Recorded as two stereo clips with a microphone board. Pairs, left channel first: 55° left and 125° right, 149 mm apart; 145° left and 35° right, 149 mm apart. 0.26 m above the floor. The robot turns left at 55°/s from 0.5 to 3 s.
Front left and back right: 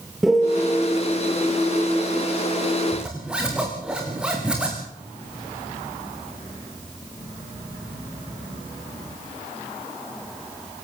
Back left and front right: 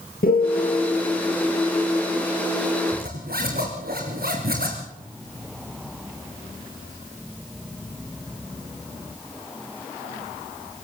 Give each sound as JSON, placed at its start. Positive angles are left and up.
{"t": 0.2, "sound": "a piano", "azimuth_deg": 145, "distance_m": 5.0}
{"t": 2.9, "sound": "a zipper", "azimuth_deg": -35, "distance_m": 6.0}